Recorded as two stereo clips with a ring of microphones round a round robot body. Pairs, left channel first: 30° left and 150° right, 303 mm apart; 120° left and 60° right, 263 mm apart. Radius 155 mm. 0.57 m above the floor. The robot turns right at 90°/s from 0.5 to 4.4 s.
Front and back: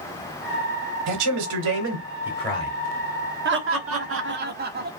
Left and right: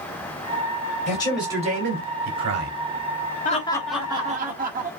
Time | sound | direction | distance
1.1 | a man speaking | 175° right | 2.5 m
3.5 | laughter | 170° left | 1.2 m